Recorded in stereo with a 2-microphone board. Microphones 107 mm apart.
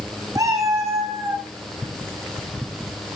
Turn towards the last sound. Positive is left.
turn(degrees=-20)  # may be behind; listen again after turning